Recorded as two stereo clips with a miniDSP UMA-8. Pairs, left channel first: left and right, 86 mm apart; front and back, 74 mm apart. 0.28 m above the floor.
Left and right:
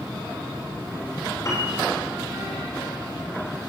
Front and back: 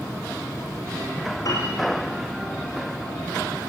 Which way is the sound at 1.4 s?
35° left.